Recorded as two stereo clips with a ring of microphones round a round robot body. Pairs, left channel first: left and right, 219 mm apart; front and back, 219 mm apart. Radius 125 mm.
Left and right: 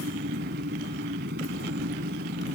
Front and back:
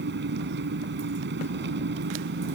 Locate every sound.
0.0 s an engine running: 140° right